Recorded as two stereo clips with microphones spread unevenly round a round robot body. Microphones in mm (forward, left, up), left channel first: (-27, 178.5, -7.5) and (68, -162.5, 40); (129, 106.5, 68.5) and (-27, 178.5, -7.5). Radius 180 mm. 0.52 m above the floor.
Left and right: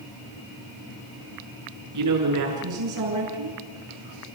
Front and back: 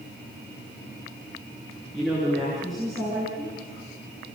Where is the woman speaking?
120° right, 6.5 m.